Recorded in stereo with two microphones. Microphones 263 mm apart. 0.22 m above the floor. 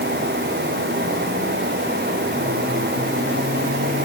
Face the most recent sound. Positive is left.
No sound to turn to.